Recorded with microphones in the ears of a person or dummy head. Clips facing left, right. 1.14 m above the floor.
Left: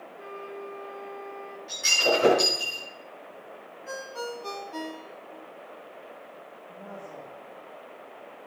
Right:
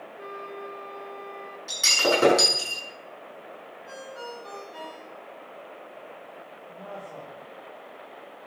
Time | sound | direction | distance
0.2 | a flute | 20° right (ahead or behind) | 1.6 m
1.7 | breaking glass | 65° right (ahead or behind) | 7 m
3.9 | a ringtone | 60° left (ahead or behind) | 1.2 m
6.7 | a woman speaking | 5° left (ahead or behind) | 3 m